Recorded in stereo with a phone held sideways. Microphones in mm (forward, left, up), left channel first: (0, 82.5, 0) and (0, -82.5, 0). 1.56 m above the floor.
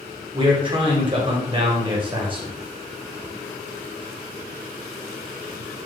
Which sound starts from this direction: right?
A man speaking, at 0.3 s.